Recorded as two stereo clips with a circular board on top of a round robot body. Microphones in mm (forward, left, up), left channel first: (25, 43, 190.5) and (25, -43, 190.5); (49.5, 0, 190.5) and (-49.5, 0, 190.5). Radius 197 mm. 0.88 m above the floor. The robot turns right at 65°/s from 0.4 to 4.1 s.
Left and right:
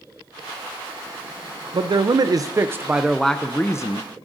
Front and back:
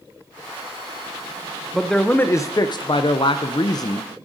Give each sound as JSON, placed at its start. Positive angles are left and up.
{"t": 1.7, "sound": "a man speaking", "azimuth_deg": -95, "distance_m": 0.5}